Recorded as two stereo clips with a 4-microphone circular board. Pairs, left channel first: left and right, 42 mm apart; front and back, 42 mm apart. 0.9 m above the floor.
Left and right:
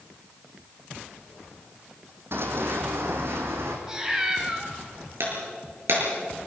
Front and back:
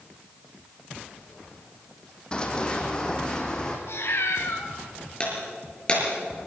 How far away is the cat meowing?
About 3 m.